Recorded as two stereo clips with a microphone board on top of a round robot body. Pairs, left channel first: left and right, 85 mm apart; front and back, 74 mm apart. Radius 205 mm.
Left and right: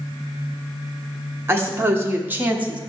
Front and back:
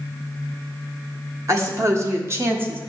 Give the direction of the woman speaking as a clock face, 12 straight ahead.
5 o'clock.